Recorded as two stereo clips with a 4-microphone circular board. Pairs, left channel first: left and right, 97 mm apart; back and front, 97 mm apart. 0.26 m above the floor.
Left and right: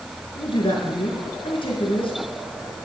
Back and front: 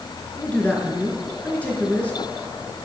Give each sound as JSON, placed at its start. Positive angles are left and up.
{"t": 0.3, "sound": "a man speaking", "azimuth_deg": 105, "distance_m": 4.0}